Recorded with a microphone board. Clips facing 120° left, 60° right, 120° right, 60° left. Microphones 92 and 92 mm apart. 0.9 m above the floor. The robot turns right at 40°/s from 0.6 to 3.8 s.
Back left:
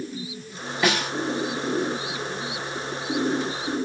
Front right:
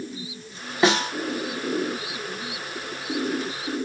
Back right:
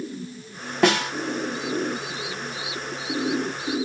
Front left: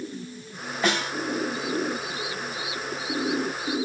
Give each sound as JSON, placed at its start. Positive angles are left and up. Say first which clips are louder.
{"t": 0.8, "sound": "a snare drum", "louder": "front right 4 dB, back right 6 dB", "azimuth_deg": -120, "distance_m": 0.9}